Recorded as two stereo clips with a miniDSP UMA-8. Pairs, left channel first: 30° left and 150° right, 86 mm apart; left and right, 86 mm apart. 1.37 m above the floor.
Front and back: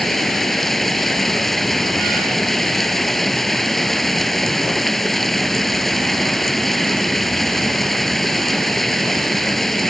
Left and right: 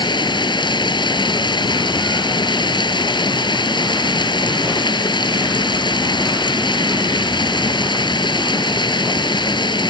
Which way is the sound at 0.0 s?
115° left.